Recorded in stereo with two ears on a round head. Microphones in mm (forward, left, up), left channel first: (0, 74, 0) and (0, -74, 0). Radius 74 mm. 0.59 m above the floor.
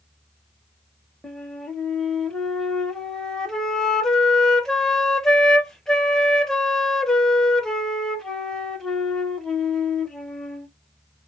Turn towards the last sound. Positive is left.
turn(degrees=5)  # may be behind; listen again after turning